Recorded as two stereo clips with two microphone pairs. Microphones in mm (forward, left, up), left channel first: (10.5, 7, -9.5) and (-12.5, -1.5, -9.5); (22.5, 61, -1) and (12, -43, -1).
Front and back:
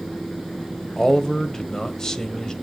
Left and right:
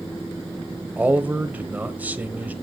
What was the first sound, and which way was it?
A man speaking, 30° right.